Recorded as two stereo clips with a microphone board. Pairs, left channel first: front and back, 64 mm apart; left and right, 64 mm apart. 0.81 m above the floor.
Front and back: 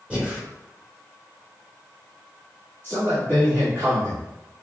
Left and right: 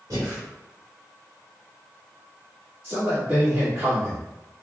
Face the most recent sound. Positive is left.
turn(degrees=-130)